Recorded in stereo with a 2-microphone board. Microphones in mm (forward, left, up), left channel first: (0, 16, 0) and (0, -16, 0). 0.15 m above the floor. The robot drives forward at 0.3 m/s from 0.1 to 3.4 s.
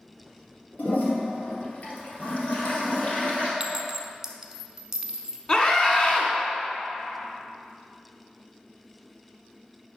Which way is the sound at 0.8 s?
55° left (ahead or behind).